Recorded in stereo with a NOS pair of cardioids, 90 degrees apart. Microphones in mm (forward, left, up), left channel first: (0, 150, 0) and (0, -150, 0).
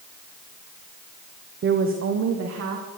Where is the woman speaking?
40° right, 1.3 m; by 2.9 s 55° right, 2.5 m.